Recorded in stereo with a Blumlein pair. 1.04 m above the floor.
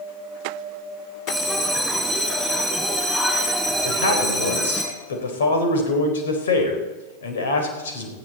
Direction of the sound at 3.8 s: 60° left.